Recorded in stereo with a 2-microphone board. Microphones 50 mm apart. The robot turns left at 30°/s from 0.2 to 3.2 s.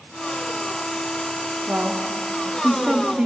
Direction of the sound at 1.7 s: 110° right.